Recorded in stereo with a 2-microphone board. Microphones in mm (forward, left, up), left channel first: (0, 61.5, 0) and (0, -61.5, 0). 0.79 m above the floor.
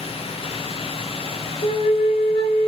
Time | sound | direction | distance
1.6 | a flute | 40° left (ahead or behind) | 0.8 m